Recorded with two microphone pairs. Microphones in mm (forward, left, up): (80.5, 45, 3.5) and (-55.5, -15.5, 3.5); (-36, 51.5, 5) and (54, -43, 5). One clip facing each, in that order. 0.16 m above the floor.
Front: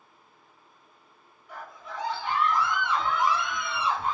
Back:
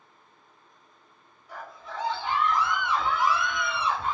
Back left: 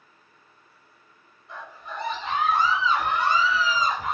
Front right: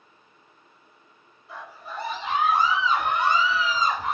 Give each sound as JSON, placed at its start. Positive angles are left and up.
{"t": 1.5, "sound": "a scream", "azimuth_deg": -130, "distance_m": 1.7}